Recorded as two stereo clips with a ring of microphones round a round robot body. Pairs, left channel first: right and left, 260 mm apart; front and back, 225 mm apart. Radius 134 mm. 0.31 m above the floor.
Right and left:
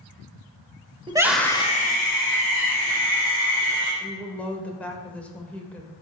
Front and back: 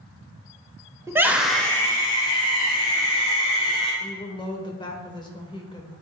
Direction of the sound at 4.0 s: 15° right.